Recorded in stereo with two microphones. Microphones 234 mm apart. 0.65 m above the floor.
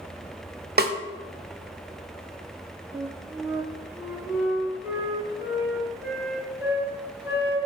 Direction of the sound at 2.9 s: 10° right (ahead or behind).